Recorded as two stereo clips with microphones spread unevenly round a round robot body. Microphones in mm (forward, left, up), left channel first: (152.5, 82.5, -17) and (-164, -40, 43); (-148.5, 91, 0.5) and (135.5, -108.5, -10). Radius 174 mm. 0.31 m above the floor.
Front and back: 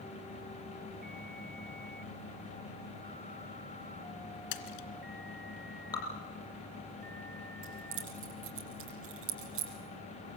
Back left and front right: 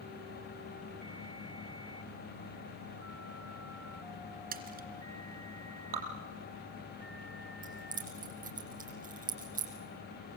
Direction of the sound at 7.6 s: 105° right.